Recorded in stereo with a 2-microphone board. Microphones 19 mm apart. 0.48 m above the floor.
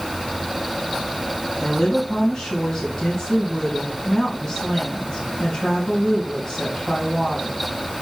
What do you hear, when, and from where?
1.6 s a woman speaking: 30° left (ahead or behind), 3 m